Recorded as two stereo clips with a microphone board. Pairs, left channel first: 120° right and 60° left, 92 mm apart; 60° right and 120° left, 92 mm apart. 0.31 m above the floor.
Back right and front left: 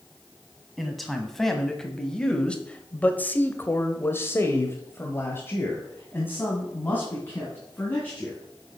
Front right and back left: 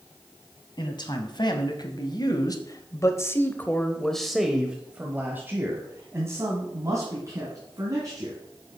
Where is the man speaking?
30° right, 1.9 m; by 8.4 s 170° left, 3 m.